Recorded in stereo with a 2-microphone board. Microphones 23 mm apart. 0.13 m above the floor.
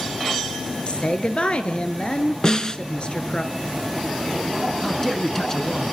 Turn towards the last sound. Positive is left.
turn(degrees=20)  # may be behind; listen again after turning